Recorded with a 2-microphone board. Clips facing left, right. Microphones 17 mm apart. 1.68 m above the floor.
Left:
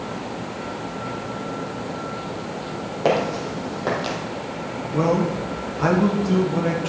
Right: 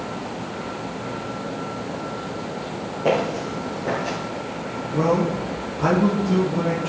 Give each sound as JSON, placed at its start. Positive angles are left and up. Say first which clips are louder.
{"t": 3.0, "sound": "footsteps", "louder": "left 1 dB", "side_deg": 45, "distance_m": 3.5}
{"t": 4.9, "sound": "a man speaking", "louder": "even", "side_deg": 25, "distance_m": 1.7}